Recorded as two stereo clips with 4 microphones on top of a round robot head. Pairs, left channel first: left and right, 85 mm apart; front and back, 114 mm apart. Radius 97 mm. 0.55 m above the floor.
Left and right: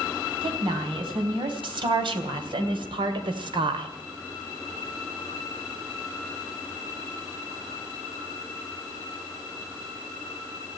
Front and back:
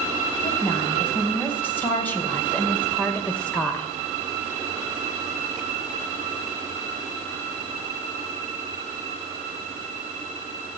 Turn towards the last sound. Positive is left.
turn(degrees=-80)